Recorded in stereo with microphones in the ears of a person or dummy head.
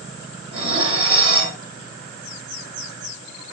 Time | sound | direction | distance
0.5 | dishes clattering | 30° right (ahead or behind) | 2.5 m